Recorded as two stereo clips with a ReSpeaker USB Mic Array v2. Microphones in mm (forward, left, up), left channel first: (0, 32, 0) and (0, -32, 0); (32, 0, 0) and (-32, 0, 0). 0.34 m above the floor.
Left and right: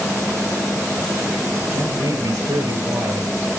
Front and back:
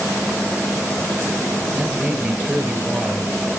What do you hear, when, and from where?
1.7 s a man speaking: 110° right, 5 m